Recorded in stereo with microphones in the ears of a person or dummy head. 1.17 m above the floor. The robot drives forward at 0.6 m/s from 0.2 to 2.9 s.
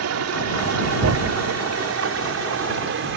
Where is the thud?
75° right (ahead or behind); by 3.2 s 60° right (ahead or behind).